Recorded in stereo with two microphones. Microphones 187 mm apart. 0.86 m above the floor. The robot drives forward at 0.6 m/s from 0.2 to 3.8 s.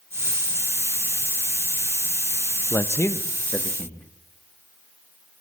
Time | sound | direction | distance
2.7 | a man speaking | 15° left (ahead or behind) | 0.6 m